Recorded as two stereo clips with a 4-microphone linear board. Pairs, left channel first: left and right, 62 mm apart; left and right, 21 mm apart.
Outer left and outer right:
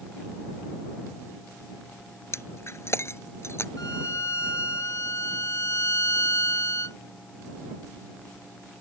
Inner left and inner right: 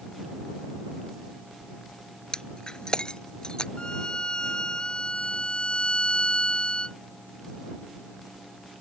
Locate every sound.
2.3 s breaking glass: 45° left (ahead or behind)
3.8 s a violin: 55° left (ahead or behind)